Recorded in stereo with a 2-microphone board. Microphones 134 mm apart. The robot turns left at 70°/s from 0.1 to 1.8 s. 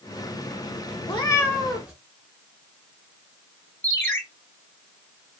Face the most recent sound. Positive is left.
turn(degrees=15)  # may be behind; listen again after turning